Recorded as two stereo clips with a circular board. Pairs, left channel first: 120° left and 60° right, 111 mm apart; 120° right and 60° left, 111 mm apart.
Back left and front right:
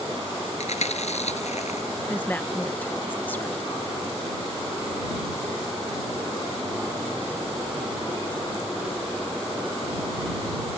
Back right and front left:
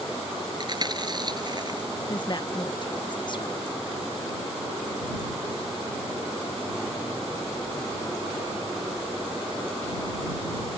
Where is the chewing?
110° left.